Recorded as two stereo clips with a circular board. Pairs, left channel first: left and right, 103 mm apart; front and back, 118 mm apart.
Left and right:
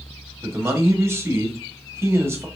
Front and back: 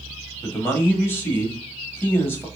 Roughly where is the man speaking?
Ahead right.